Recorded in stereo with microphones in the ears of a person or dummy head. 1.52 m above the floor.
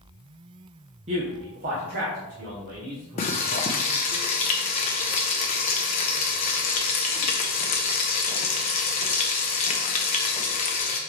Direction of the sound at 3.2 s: 30° left (ahead or behind).